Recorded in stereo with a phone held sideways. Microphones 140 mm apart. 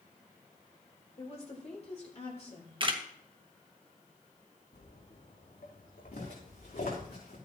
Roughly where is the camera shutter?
Right.